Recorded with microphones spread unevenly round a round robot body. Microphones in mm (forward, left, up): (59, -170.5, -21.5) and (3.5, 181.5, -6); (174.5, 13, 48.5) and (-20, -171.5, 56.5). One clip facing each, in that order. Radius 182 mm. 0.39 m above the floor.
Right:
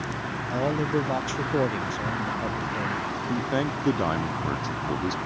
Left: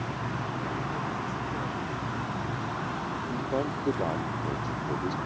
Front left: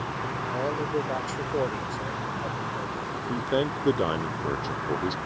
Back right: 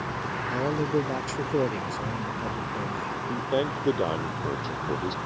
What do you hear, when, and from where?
0.5 s a man speaking: 85° right
3.3 s a man speaking: 30° right